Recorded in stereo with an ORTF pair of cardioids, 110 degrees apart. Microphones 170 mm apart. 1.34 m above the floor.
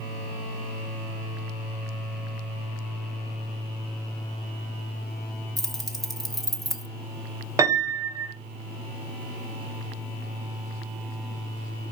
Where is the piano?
20° right, 0.9 m.